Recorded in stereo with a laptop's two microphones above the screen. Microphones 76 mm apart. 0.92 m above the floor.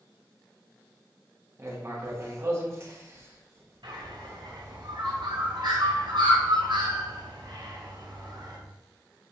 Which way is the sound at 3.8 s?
75° right (ahead or behind).